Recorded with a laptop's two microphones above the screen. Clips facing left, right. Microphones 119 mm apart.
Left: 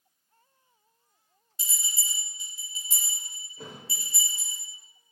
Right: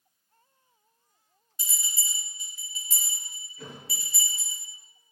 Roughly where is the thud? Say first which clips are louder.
Even; left.